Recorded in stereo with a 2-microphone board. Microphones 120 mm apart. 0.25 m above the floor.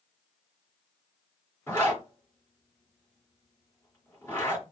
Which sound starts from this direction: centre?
A zipper, at 1.7 s.